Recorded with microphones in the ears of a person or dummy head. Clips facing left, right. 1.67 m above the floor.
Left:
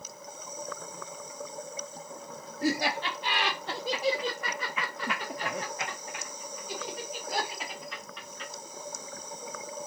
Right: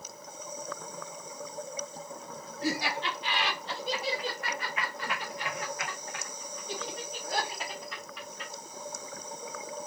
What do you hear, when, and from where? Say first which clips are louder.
2.6 s laughter: left 3 dB; 45° left (ahead or behind), 1.3 m; by 8.5 s 5° right (ahead or behind), 2.0 m